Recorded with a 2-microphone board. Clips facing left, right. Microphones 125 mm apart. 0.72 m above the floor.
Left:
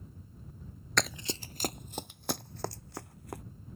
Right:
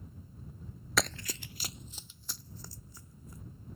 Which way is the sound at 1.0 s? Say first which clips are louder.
Even; 5° right (ahead or behind).